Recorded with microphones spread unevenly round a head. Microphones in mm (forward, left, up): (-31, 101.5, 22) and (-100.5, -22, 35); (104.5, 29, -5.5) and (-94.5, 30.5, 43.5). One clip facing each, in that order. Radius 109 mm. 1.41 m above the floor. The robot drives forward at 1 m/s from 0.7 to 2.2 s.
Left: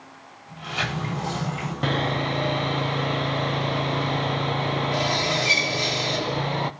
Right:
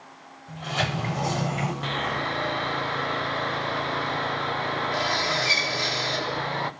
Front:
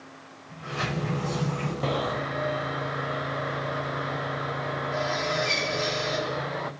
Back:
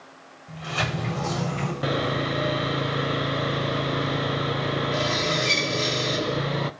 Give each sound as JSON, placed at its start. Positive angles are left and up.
{"t": 0.5, "sound": "a sliding door", "azimuth_deg": -155, "distance_m": 8.0}
{"t": 1.8, "sound": "sawing", "azimuth_deg": 100, "distance_m": 0.5}